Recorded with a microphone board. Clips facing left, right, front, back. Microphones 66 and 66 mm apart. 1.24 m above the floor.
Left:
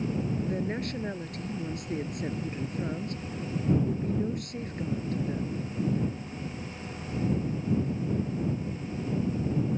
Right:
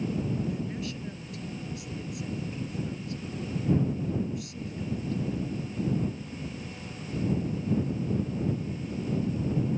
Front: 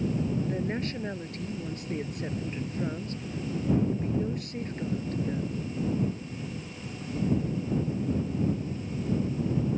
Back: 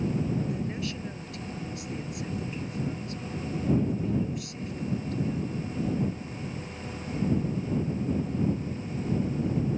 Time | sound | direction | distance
0.5 | a woman speaking | 50° left | ?